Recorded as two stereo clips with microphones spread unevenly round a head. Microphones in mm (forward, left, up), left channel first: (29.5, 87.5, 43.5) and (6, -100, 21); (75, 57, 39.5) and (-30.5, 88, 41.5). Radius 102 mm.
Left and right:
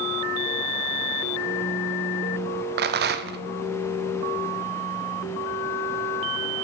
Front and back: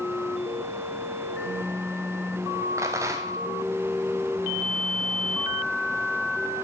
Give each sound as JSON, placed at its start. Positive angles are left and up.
{"t": 2.8, "sound": "a rattle", "azimuth_deg": -125, "distance_m": 0.6}